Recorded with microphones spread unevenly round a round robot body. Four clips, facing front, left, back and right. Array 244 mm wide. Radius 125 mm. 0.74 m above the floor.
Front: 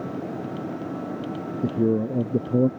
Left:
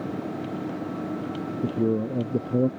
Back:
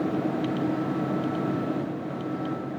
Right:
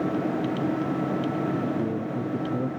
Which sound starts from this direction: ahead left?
A man speaking, at 1.6 s.